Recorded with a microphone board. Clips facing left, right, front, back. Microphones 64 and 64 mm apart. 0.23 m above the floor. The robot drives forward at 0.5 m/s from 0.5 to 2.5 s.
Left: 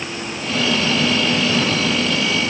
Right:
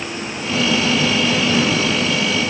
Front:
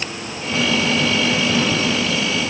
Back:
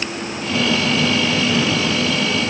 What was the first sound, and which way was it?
Only background noise.